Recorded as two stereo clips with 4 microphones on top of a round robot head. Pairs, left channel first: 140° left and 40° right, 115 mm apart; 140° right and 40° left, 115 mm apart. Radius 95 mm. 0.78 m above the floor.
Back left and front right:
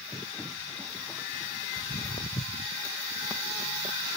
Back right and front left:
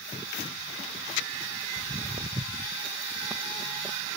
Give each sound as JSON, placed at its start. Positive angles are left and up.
{"t": 1.8, "sound": "footsteps", "azimuth_deg": 95}